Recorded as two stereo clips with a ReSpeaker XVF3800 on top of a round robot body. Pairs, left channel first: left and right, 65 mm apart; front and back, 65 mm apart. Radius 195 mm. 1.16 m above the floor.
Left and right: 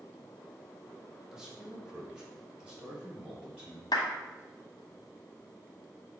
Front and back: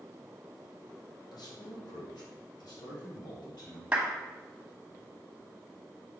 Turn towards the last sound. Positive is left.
turn(degrees=105)